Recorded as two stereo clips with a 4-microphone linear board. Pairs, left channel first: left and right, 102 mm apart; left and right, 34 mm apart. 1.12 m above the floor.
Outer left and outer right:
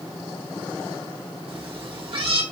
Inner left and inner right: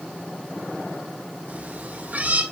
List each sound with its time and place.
1.5 s a cat meowing: 60° right (ahead or behind), 3 m